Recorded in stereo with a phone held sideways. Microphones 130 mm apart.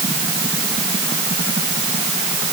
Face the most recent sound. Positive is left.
No sound to turn to.